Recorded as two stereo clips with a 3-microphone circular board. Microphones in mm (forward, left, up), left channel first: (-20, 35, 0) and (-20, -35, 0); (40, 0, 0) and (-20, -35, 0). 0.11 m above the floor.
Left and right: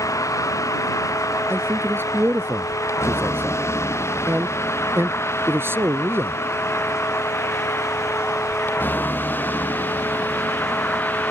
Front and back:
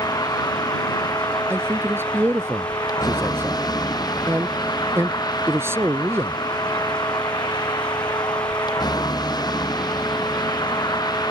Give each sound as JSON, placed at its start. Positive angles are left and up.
{"t": 0.0, "sound": "a vehicle", "azimuth_deg": 50}
{"t": 1.5, "sound": "a man speaking", "azimuth_deg": -125}